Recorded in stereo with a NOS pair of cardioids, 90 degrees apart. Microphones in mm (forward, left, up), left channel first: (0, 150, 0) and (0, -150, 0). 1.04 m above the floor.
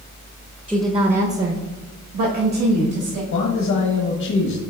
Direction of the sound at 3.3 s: 65° left.